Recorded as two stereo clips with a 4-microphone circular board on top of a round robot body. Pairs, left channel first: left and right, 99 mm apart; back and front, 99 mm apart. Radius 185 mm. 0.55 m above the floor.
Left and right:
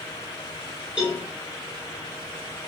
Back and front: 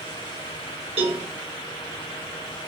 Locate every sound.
1.0 s a cowbell: 10° right, 1.3 m